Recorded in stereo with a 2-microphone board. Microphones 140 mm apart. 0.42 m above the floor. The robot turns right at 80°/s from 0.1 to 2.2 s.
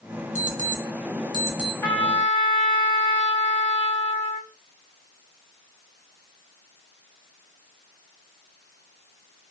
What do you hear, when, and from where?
0.3 s an alarm clock: 60° right (ahead or behind), 0.8 m; by 1.7 s centre (ahead or behind), 0.8 m
1.8 s a trumpet: 25° left, 1.2 m; by 4.5 s 55° left, 1.2 m